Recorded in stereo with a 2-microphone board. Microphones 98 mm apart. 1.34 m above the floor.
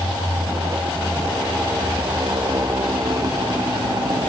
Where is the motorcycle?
35° right (ahead or behind); by 4.3 s 50° right (ahead or behind).